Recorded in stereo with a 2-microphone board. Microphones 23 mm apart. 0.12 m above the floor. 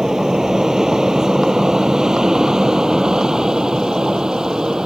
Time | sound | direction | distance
0.0 | an aircraft | 20° right (ahead or behind) | ?